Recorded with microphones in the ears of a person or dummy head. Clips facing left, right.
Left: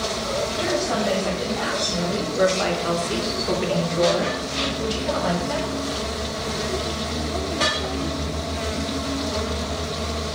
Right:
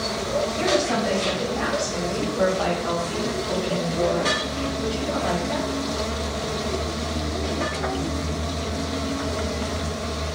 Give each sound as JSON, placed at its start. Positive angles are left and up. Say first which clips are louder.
{"t": 0.6, "sound": "a woman speaking", "louder": "right 1 dB", "side_deg": -20, "distance_m": 1.7}